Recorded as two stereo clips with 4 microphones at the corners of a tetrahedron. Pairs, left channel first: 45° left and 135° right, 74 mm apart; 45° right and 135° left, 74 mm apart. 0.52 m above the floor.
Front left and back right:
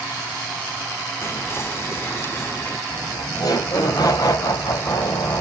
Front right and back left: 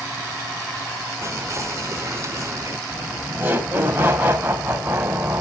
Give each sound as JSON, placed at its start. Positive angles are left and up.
{"t": 1.2, "sound": "whispering", "azimuth_deg": 95, "distance_m": 1.2}
{"t": 2.9, "sound": "laughter", "azimuth_deg": 70, "distance_m": 2.5}